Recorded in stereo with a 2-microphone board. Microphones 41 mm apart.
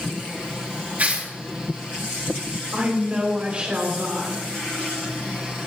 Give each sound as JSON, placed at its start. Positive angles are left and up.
{"t": 1.0, "sound": "tearing paper", "side_deg": -45, "distance_m": 3.5}
{"t": 2.7, "sound": "a woman speaking", "side_deg": -30, "distance_m": 3.5}